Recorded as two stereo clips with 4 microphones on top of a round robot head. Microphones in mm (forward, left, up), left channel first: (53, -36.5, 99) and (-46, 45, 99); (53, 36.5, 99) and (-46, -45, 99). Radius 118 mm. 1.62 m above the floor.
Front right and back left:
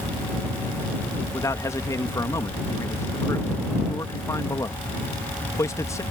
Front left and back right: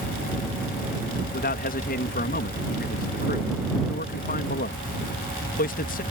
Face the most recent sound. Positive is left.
turn(degrees=30)